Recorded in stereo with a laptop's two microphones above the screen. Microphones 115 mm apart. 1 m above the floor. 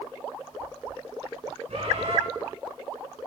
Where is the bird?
65° right (ahead or behind), 5 m.